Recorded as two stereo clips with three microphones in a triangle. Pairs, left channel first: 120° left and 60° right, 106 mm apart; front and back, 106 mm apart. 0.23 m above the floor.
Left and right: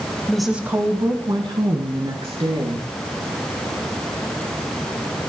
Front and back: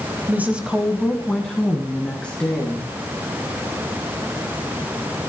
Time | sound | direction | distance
0.3 | a woman speaking | straight behind | 1.1 m